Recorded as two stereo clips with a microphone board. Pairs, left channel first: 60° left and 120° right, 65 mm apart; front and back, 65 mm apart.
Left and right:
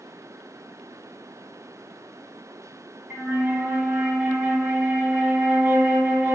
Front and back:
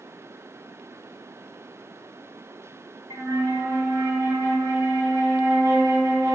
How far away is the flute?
About 1.3 m.